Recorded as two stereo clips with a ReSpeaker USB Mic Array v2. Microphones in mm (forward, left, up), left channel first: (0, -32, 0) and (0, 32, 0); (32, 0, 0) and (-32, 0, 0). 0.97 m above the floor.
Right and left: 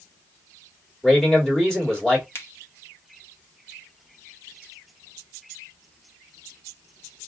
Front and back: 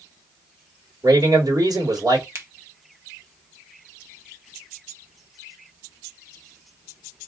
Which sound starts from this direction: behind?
A man speaking, at 1.0 s.